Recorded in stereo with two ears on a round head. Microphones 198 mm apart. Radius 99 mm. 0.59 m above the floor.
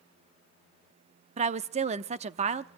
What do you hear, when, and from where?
1.4 s a woman speaking: 30° right (ahead or behind), 0.7 m